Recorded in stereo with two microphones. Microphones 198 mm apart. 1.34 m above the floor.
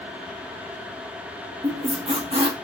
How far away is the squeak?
About 0.8 m.